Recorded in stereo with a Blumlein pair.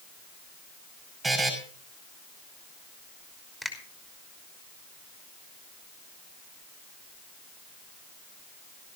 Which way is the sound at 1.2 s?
15° right.